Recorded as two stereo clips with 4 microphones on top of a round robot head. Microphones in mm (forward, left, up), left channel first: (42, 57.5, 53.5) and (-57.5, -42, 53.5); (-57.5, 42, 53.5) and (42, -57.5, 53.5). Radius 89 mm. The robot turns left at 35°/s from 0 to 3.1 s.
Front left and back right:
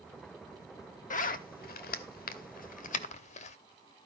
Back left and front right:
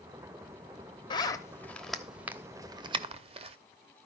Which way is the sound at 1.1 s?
75° left.